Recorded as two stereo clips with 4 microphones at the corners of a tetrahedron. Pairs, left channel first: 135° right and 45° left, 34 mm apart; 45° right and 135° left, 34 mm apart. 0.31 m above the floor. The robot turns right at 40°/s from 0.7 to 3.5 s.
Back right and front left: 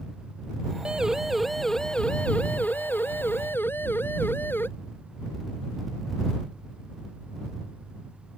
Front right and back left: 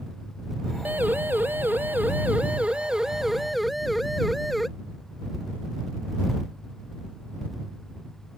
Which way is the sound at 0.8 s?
110° left.